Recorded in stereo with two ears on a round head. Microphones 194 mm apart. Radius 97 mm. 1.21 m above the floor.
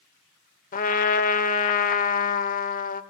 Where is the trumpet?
40° left (ahead or behind), 1.1 m.